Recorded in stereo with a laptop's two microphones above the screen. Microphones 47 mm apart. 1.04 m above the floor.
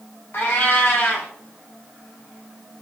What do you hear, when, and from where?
0.3 s a cat meowing: 50° left (ahead or behind), 0.6 m